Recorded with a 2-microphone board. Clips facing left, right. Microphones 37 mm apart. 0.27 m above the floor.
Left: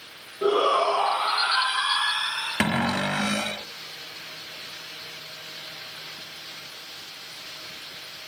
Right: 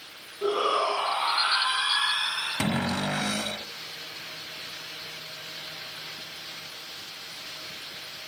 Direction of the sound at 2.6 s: 50° left (ahead or behind).